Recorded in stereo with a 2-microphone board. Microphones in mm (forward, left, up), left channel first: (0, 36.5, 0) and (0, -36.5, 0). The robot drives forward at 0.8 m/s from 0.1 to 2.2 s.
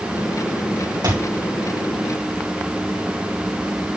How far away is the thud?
About 6 m.